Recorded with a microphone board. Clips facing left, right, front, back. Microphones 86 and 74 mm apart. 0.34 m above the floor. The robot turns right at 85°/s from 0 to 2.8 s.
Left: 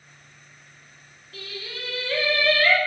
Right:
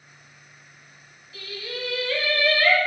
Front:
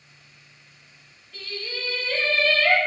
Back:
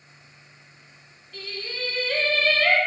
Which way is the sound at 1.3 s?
85° left.